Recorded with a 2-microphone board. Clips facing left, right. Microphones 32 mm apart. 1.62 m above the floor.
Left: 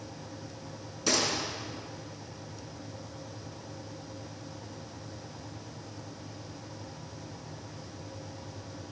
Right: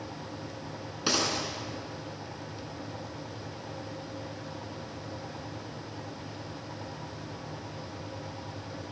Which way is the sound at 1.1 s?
25° right (ahead or behind).